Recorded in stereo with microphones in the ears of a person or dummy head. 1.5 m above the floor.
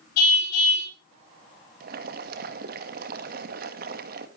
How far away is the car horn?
About 6 m.